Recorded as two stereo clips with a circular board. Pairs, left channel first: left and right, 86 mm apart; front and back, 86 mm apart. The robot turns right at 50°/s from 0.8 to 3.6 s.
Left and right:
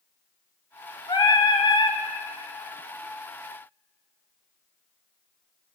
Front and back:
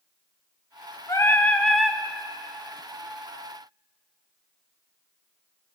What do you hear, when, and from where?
1.1 s singing: 50° left, 1.1 m; by 2.0 s 100° left, 1.1 m